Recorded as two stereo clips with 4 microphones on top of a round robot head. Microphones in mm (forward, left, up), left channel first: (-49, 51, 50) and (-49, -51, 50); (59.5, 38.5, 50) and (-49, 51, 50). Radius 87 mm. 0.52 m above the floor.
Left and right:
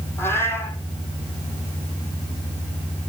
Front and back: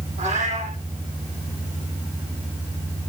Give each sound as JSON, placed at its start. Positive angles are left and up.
{"t": 0.2, "sound": "a cat meowing", "azimuth_deg": 160, "distance_m": 9.5}